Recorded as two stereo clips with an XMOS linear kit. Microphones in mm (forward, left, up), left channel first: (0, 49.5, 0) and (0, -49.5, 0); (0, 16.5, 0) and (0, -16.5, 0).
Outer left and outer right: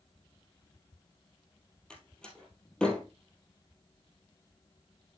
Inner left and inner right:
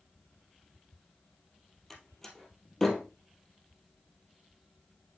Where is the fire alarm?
No fire alarm in this recording.